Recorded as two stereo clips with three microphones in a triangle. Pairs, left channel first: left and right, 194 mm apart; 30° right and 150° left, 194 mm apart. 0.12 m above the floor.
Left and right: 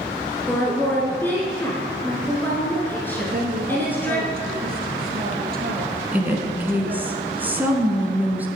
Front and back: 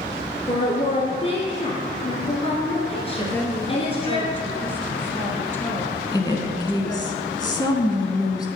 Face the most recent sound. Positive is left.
turn(degrees=-25)